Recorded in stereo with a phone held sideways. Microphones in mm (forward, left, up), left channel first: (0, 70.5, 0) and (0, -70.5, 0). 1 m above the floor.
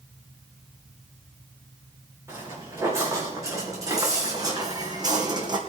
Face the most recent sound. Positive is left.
turn(degrees=-30)  # may be behind; listen again after turning